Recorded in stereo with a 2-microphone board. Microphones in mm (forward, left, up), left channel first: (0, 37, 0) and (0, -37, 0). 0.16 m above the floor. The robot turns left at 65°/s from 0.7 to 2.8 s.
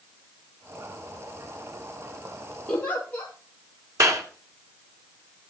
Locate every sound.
2.7 s a giggle: 15° left (ahead or behind), 2.5 m; by 3.3 s 20° left (ahead or behind), 2.5 m
4.0 s a clap: 45° right (ahead or behind), 1.7 m